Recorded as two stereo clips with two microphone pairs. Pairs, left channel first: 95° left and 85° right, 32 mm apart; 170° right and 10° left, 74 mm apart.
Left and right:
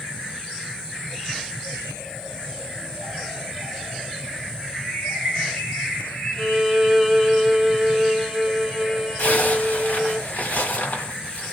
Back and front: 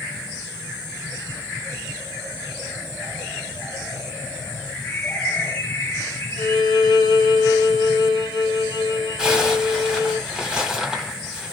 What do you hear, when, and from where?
4.7 s a bird: 125° left, 2 m
6.4 s a violin: straight behind, 1.1 m
9.2 s a zipper: 90° left, 1.6 m